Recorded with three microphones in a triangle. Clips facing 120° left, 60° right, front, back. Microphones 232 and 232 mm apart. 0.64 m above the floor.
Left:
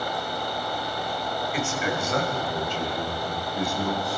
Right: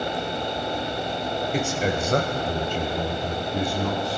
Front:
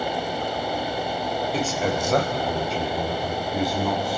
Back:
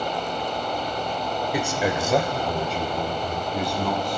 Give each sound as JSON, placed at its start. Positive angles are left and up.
{"t": 1.5, "sound": "a man speaking", "azimuth_deg": -105, "distance_m": 2.5}